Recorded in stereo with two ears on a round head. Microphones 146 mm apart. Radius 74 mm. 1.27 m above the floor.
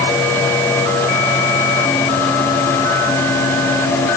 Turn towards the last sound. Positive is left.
No sound to turn to.